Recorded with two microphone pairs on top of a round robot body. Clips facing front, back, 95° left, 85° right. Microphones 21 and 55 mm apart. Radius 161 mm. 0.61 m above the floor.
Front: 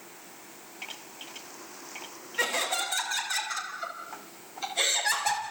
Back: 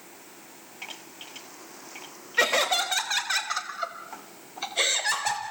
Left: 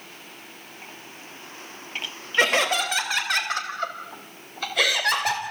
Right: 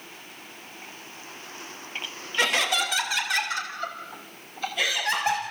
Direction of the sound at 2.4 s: 145° left.